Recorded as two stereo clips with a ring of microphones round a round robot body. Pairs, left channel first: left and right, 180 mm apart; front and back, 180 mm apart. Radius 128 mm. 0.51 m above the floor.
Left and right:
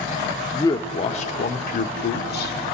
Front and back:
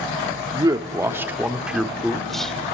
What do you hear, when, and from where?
0.5 s a man speaking: 145° left, 1.1 m; by 2.5 s 85° left, 1.8 m